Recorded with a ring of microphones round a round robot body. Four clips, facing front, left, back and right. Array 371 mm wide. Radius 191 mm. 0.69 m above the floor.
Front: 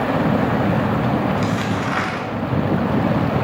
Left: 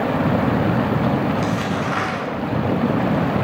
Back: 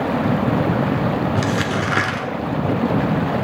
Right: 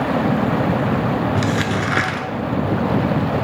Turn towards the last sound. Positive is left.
turn(degrees=-130)